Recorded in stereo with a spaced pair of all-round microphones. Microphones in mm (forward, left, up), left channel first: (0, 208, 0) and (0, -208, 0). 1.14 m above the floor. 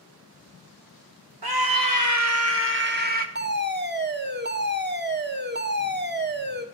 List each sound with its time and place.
1.4 s a scream: 65° right (ahead or behind), 1.5 m; by 3.2 s 20° right (ahead or behind), 2.5 m
3.4 s a fire alarm: 25° right (ahead or behind), 1.6 m